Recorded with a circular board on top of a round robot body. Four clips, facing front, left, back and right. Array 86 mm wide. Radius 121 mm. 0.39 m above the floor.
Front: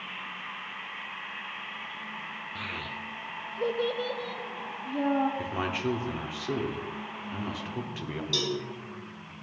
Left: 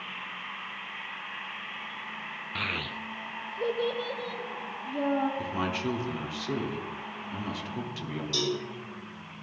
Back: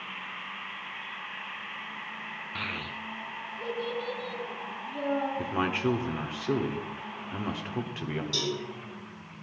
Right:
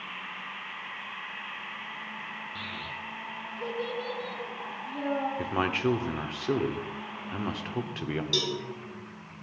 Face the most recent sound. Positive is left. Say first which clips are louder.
# left 5 dB, front 4 dB
turn(degrees=-60)